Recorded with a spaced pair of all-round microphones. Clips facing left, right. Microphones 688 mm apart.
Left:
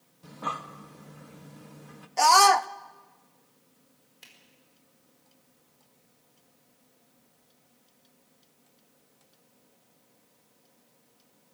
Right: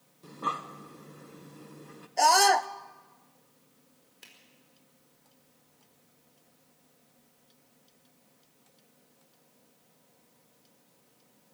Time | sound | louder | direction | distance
0.2 | breathing | even | 20° left (ahead or behind) | 1.1 m
2.2 | a scream | left 1 dB | 40° left (ahead or behind) | 0.6 m
4.2 | a finger snap | right 1 dB | 15° left (ahead or behind) | 4.5 m